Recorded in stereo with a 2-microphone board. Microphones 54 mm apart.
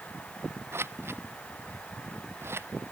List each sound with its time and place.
0.7 s scissors: 50° right (ahead or behind)